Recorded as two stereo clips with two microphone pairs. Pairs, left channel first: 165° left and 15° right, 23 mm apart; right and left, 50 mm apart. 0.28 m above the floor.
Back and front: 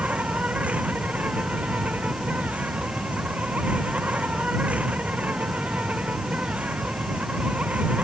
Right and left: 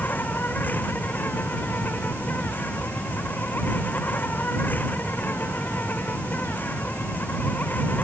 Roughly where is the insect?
Ahead right.